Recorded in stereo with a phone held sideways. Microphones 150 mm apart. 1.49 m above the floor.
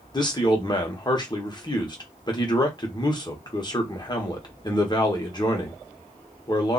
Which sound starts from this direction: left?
A man speaking, at 0.1 s.